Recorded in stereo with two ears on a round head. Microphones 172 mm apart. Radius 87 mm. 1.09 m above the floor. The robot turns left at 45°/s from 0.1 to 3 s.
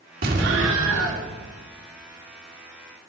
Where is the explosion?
50° right, 2 m; by 1.2 s 95° right, 2 m.